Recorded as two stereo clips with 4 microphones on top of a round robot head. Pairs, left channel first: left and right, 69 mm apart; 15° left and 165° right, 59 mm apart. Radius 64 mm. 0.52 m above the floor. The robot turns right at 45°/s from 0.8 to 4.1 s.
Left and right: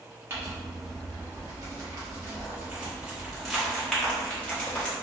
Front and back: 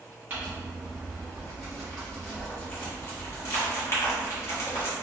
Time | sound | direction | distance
0.3 | crumpling | 125° right | 1.5 m